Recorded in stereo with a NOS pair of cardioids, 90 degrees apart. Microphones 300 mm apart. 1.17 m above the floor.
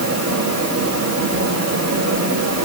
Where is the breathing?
No breathing in this recording.